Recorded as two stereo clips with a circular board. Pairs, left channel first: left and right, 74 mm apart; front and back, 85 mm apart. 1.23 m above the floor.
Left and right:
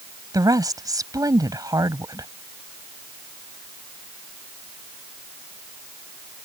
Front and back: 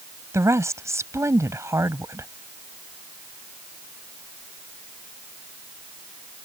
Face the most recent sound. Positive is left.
turn(degrees=-125)